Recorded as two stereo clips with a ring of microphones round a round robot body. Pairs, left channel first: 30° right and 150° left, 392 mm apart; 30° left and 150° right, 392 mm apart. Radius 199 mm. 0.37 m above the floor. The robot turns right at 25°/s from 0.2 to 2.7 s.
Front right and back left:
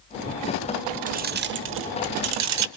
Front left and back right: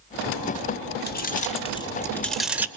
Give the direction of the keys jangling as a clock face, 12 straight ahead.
9 o'clock.